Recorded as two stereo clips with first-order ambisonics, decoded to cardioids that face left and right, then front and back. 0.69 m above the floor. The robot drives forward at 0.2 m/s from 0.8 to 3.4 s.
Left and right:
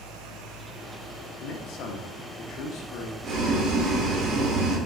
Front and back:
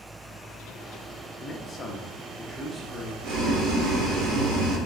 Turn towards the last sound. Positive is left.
turn(degrees=-140)